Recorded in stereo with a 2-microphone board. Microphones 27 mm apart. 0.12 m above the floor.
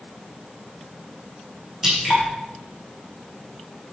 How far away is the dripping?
About 6.5 m.